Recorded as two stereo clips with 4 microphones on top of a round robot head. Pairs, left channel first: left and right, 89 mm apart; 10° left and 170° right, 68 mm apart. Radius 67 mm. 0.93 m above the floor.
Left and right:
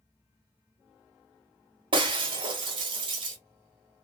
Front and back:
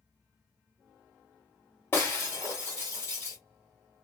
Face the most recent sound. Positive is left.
turn(degrees=-60)